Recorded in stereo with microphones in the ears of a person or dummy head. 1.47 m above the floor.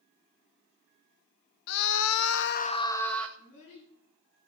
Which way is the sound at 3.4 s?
70° left (ahead or behind).